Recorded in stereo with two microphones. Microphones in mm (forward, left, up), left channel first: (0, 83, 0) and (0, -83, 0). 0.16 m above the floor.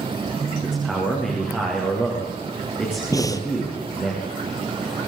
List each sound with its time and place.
0.6 s a man speaking: 5° right (ahead or behind), 8.5 m
3.1 s breathing: 20° left (ahead or behind), 1.6 m